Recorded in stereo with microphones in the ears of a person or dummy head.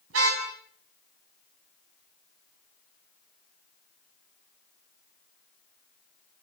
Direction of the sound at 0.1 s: 80° right.